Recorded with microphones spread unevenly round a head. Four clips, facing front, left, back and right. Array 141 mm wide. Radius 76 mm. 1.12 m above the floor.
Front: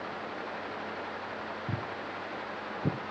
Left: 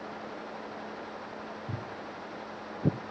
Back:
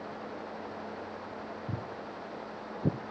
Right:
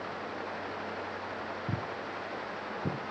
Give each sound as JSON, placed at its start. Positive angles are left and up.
{"t": 1.7, "sound": "footsteps", "azimuth_deg": -60, "distance_m": 1.1}